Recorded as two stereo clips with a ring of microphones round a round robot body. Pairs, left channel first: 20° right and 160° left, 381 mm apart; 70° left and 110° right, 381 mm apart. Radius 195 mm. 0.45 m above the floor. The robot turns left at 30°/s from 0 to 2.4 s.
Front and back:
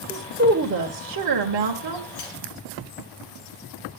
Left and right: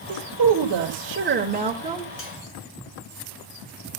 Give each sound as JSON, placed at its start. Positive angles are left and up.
{"t": 0.1, "sound": "a woman speaking", "azimuth_deg": -130, "distance_m": 1.8}
{"t": 2.2, "sound": "cutlery clinking", "azimuth_deg": 10, "distance_m": 4.0}